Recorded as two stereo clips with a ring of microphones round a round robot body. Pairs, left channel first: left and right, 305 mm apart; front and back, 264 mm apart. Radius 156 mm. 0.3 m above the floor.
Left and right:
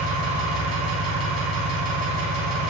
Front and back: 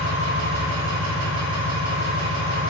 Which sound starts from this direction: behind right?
An engine running, at 0.0 s.